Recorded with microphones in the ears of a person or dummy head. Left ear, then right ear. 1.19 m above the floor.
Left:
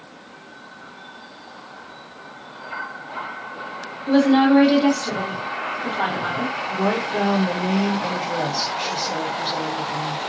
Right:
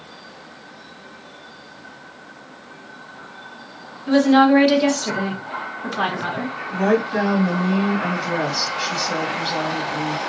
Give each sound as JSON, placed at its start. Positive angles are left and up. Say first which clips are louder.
{"t": 4.1, "sound": "a woman speaking", "louder": "right 2 dB", "side_deg": -60, "distance_m": 1.4}
{"t": 6.7, "sound": "a woman speaking", "louder": "right 5 dB", "side_deg": -25, "distance_m": 1.2}